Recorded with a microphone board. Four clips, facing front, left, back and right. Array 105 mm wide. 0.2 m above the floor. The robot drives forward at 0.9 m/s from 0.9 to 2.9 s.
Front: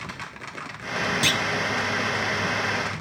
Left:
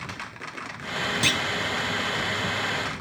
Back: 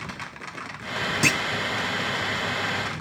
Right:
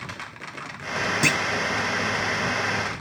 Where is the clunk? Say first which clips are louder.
Right 4 dB, back 1 dB; 140° right, 0.7 m; by 1.4 s 155° right, 0.8 m.